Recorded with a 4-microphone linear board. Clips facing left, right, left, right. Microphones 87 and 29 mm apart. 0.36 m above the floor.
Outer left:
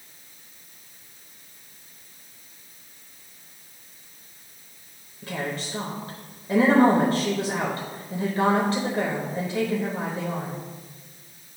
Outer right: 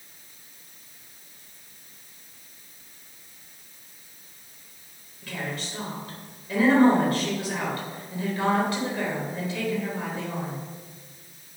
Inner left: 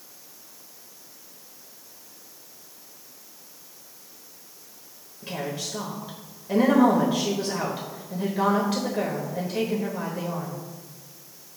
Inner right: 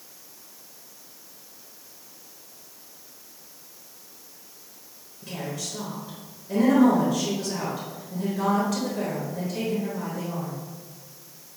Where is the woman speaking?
35° left (ahead or behind), 1.1 m.